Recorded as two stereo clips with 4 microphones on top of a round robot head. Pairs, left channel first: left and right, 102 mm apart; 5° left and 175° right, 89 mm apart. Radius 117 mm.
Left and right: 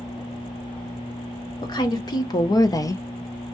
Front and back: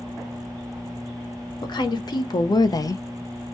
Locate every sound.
1.6 s a woman speaking: 45° left, 1.3 m; by 3.0 s 40° left, 0.5 m